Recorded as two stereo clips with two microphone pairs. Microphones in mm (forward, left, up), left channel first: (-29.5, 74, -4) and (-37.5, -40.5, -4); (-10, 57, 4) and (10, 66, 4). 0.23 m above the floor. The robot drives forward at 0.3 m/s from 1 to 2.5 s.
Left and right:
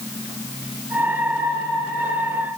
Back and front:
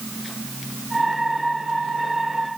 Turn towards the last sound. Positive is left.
No sound to turn to.